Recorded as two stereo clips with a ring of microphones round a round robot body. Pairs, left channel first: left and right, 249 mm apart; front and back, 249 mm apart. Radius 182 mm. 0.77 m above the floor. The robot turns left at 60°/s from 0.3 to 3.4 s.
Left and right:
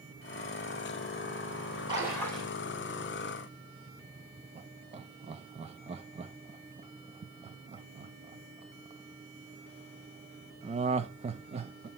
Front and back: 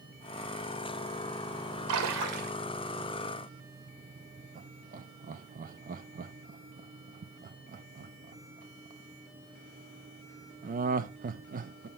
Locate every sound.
1.9 s a splash: 165° right, 1.8 m; by 2.5 s 155° left, 1.8 m
4.5 s laughter: 145° right, 0.5 m